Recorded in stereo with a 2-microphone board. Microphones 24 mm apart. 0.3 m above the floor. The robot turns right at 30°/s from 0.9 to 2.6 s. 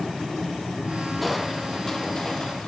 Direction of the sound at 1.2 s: Straight ahead.